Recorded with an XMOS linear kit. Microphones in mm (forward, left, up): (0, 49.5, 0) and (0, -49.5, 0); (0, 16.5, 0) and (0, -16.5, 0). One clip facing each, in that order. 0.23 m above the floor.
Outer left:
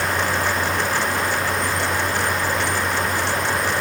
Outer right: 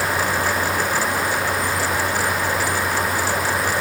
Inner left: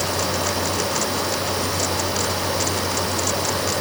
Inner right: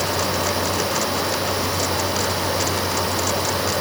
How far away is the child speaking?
No child speaking in this recording.